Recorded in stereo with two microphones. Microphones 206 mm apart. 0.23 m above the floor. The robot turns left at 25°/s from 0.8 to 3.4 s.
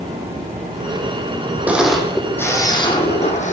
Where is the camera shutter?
175° right, 1.7 m; by 3.5 s 145° left, 1.7 m.